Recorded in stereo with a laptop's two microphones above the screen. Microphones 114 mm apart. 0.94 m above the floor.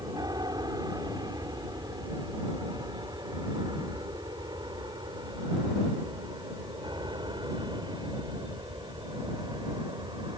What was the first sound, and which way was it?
An aircraft, 35° right (ahead or behind).